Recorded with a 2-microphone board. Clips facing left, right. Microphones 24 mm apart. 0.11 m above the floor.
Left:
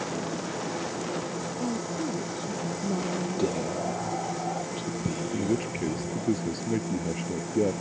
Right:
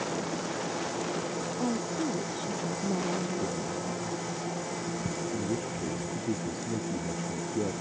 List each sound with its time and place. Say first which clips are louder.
1.6 s a woman speaking: even; 25° right (ahead or behind); by 4.0 s 10° left (ahead or behind)
3.4 s whispering: left 5 dB; 60° left (ahead or behind)
5.3 s a man speaking: left 4 dB; 45° left (ahead or behind)